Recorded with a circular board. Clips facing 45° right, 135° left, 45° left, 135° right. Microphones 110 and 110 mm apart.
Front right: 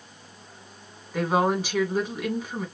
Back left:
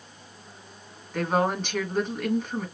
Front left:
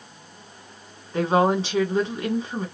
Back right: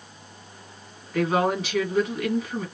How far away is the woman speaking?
About 1.3 m.